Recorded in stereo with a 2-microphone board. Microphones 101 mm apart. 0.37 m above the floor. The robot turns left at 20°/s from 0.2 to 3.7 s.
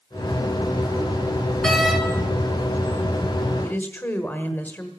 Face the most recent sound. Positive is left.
turn(degrees=15)  # may be behind; listen again after turning